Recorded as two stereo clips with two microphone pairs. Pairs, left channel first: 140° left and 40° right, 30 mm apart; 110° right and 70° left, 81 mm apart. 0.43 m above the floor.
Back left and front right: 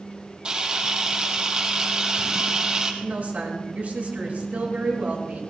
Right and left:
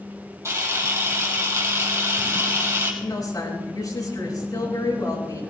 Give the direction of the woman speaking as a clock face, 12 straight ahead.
3 o'clock.